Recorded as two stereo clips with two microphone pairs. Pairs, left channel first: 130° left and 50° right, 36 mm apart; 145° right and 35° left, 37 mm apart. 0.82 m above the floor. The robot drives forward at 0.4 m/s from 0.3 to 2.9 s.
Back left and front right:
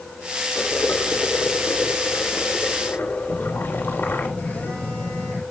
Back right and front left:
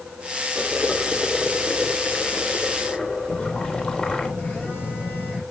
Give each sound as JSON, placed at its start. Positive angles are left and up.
{"t": 0.6, "sound": "boiling", "azimuth_deg": 140, "distance_m": 2.5}
{"t": 3.3, "sound": "a phone buzzing", "azimuth_deg": 170, "distance_m": 8.0}